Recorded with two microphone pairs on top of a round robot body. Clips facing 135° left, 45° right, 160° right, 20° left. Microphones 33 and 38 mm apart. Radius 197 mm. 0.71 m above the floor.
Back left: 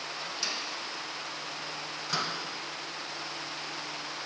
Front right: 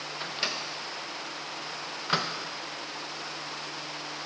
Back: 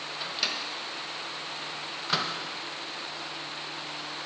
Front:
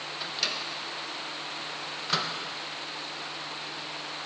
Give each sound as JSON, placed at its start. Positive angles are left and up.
{"t": 0.2, "sound": "a microwave", "azimuth_deg": -70, "distance_m": 0.9}